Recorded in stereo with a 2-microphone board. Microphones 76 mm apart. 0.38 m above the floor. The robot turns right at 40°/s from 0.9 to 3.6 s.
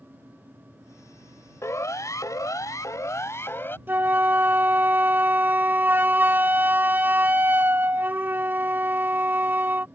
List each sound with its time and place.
1.6 s a siren: 40° left (ahead or behind); by 3.8 s 30° left (ahead or behind)
3.9 s a flute: 30° right (ahead or behind)